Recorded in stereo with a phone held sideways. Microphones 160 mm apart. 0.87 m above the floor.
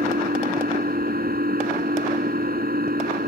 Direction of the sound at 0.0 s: 85° right.